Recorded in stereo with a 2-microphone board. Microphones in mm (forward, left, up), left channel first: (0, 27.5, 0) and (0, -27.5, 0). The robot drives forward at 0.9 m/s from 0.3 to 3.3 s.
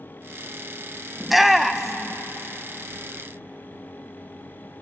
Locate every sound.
1.2 s a shout: centre (ahead or behind), 0.7 m